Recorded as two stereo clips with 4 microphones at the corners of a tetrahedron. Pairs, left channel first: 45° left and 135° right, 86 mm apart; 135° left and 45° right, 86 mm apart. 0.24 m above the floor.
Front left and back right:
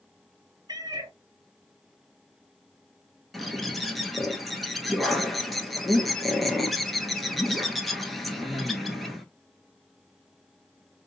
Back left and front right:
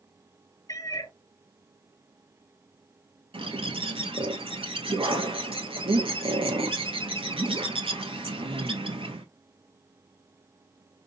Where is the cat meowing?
Straight behind, 0.8 m.